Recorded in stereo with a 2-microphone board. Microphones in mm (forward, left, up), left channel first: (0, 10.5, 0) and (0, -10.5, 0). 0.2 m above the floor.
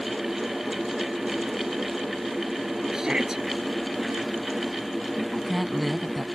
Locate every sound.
2.9 s a shout: 30° right (ahead or behind)
5.2 s a woman speaking: 5° right (ahead or behind)